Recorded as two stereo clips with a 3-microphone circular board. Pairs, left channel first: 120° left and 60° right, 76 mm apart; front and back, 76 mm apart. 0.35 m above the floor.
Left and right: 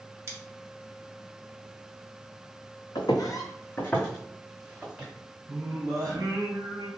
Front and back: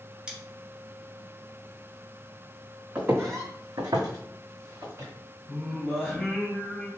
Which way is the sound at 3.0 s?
115° left.